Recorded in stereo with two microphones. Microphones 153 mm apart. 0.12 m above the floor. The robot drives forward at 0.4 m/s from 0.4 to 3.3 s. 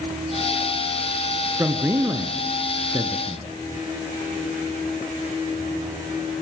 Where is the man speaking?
20° right (ahead or behind), 1.3 m.